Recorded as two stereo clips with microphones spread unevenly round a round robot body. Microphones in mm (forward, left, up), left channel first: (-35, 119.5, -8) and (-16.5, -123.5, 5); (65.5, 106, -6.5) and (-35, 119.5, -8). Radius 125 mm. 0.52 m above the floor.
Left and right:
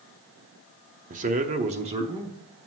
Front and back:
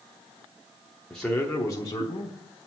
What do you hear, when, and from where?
1.1 s a man speaking: 95° right, 0.7 m; by 2.4 s 20° right, 0.9 m